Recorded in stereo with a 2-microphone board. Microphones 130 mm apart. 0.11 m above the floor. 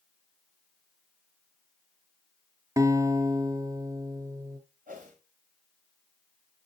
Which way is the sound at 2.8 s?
25° right (ahead or behind).